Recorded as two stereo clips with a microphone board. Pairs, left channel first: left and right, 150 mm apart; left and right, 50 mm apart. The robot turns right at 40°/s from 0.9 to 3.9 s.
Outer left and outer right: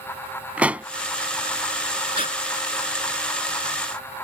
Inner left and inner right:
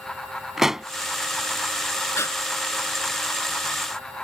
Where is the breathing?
65° left (ahead or behind).